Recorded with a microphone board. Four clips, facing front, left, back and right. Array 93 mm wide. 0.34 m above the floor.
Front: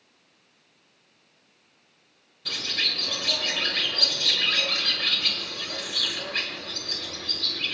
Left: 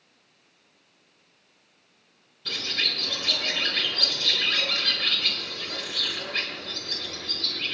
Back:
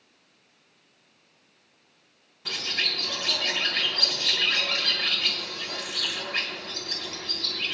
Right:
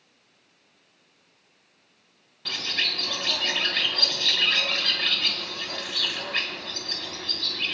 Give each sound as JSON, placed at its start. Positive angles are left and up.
{"t": 2.5, "sound": "a bird", "azimuth_deg": -115, "distance_m": 2.5}